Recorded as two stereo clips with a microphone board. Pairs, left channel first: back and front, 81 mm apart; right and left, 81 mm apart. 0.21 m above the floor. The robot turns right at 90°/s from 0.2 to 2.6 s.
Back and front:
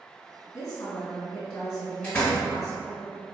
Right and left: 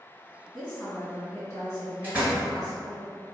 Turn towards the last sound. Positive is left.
turn(degrees=175)